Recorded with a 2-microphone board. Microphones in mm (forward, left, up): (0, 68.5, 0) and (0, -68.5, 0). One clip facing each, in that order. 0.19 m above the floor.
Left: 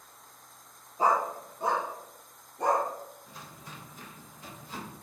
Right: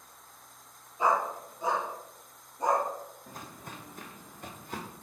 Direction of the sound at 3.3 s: 50° right (ahead or behind).